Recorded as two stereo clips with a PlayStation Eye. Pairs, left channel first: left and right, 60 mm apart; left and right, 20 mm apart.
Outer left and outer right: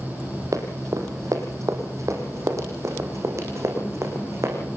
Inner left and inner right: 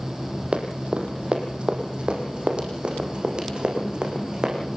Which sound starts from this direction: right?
Running footsteps, at 0.5 s.